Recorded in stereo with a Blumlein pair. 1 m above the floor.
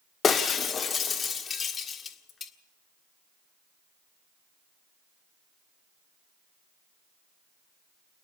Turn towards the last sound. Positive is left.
turn(degrees=20)